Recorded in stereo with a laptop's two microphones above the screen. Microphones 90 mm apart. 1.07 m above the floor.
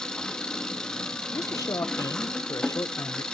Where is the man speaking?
40° left (ahead or behind), 0.8 m.